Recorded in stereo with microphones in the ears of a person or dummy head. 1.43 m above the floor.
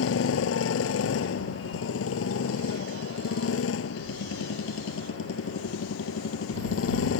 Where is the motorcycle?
85° left.